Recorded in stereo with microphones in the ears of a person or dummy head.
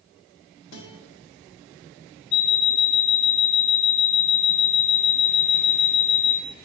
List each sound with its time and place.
0.7 s a guitar: 70° left (ahead or behind), 2.5 m
2.3 s an alarm clock: 35° left (ahead or behind), 1.7 m